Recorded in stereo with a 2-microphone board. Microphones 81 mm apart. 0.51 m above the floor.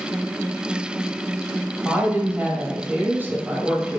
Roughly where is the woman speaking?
Right.